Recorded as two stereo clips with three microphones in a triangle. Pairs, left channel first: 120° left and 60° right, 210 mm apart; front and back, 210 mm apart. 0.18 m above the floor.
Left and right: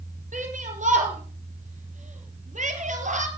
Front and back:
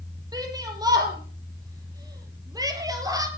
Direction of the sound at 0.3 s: 110° right.